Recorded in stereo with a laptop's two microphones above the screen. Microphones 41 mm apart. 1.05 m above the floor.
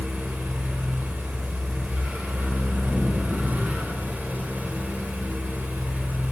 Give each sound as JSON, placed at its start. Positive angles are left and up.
{"t": 0.0, "sound": "a fan", "side_deg": -45, "distance_m": 1.0}